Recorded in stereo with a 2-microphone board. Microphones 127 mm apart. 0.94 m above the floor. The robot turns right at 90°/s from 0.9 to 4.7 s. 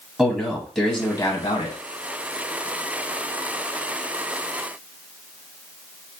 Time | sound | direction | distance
0.2 | a man speaking | 10° right | 1.0 m